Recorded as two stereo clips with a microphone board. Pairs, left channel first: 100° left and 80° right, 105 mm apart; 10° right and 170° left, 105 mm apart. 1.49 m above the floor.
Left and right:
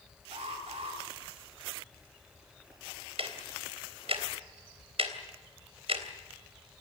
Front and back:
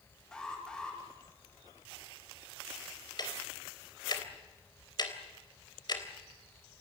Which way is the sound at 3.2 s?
55° right.